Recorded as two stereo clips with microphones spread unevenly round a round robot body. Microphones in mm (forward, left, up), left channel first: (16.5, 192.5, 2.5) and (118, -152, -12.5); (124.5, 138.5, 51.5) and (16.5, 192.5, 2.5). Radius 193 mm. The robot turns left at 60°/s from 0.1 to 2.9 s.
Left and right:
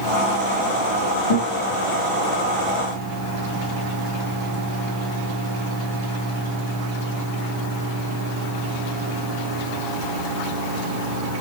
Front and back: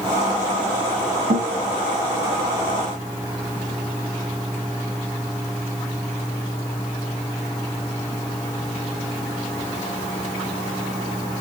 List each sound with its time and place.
1.3 s a guitar: 155° left, 5.5 m; by 1.6 s 135° left, 5.5 m